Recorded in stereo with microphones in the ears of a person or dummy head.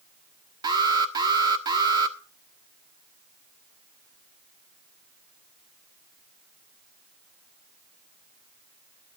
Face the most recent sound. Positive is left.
turn(degrees=-20)  # may be behind; listen again after turning